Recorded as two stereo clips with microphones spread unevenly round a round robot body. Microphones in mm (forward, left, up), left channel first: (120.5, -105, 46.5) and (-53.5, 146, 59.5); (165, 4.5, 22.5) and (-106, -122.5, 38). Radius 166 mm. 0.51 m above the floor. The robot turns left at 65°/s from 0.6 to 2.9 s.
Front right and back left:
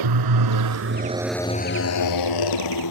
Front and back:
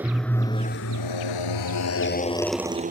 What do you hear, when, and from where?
0.0 s a motorcycle: 120° left; by 2.9 s 95° right